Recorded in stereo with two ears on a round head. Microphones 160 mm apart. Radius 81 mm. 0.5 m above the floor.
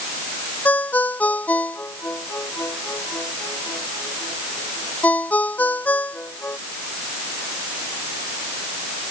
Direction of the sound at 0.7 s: 10° left (ahead or behind).